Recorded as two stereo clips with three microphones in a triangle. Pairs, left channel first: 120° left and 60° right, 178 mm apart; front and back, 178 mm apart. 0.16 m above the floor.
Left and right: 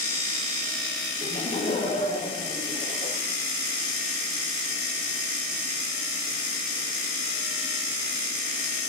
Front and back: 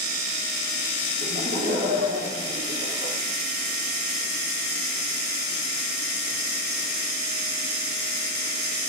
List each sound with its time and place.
1.2 s laughter: 175° left, 5 m